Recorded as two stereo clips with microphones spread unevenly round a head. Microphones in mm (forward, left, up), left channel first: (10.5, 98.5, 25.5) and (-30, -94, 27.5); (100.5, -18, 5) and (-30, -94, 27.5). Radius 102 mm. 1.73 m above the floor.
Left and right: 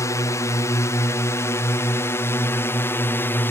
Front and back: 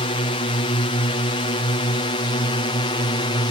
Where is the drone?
10° left; by 3.5 s 5° left.